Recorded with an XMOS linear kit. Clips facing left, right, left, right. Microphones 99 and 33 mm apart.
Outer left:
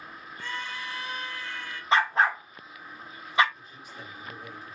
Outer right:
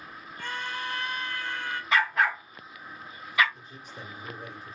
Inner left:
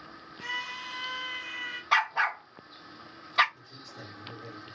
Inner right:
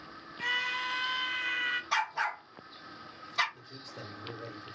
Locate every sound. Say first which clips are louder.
0.4 s a scream: outer right 2 dB, inner right 4 dB; 55° right (ahead or behind), 0.9 m
1.9 s a dog barking: outer left 2 dB, inner left 11 dB; 30° left (ahead or behind), 0.6 m
3.5 s a man speaking: outer right 1 dB, inner right 1 dB; 40° right (ahead or behind), 1.5 m